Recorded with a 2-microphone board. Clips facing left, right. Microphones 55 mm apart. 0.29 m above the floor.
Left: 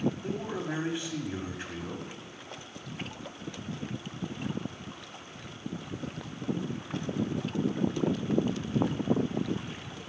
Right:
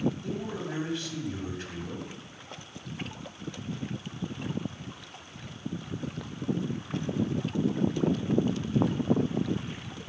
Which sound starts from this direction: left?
A man speaking, at 0.2 s.